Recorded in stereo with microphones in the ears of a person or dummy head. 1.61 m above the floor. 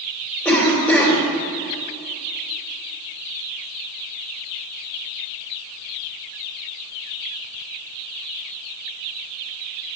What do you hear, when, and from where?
0.5 s a cough: 10° left (ahead or behind), 3.5 m